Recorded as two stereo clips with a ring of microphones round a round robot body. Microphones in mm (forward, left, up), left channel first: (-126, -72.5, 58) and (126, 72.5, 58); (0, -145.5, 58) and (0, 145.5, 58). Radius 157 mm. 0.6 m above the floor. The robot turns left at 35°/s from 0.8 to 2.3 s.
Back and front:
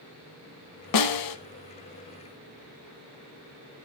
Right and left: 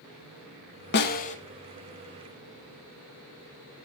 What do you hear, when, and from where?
0.9 s a snare drum: 140° right, 0.9 m; by 1.4 s 155° right, 0.9 m